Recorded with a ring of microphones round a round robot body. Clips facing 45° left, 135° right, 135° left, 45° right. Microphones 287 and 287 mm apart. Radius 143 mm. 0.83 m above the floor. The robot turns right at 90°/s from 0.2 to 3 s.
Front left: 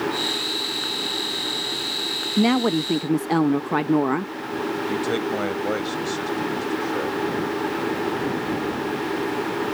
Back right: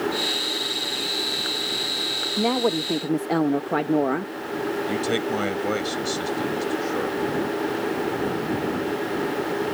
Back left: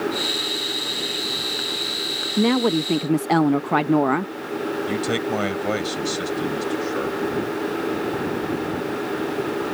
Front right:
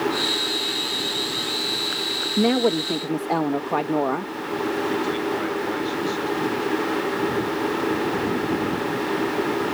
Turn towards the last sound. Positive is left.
turn(degrees=145)